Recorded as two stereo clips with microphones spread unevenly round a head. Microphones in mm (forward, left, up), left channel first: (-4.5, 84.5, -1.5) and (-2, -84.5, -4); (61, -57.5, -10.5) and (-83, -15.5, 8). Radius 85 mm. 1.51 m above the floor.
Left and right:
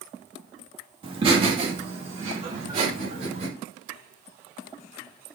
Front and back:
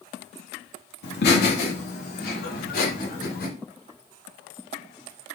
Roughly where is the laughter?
Ahead right.